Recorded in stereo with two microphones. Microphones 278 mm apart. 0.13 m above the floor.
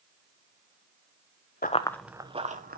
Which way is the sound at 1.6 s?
35° left (ahead or behind).